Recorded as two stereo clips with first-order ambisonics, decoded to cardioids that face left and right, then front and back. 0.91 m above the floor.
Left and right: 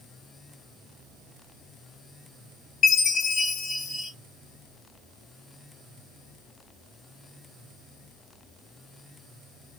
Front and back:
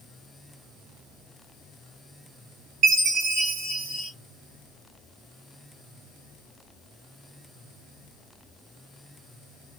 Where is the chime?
140° left, 1.9 m.